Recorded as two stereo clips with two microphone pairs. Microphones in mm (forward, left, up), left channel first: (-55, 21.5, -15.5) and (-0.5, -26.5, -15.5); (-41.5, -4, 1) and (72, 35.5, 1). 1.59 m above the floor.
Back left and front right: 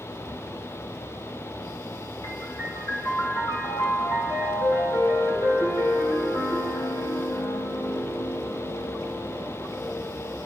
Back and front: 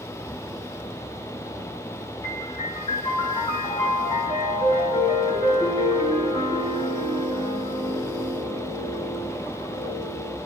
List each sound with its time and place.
2.2 s a piano: 145° left, 7.5 m